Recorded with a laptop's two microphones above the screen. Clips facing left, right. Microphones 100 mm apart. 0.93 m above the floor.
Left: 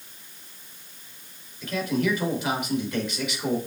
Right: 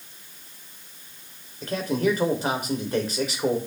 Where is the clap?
I don't hear a clap.